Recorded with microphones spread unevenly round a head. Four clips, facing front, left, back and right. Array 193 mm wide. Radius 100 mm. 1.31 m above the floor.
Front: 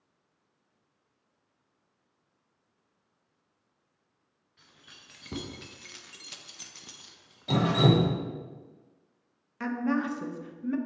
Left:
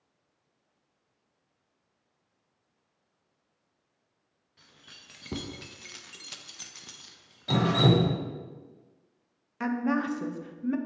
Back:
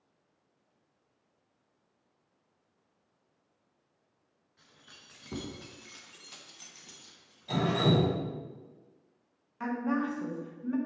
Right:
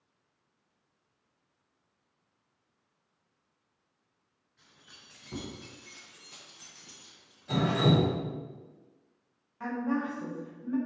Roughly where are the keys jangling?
Left.